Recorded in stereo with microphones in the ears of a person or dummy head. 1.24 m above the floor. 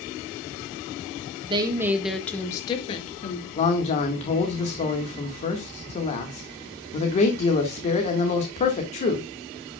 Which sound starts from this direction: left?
A man speaking, at 3.6 s.